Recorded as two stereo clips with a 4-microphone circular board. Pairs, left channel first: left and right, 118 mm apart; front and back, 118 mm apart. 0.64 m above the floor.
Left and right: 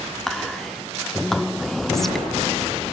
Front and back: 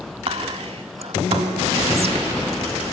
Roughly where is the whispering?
Behind.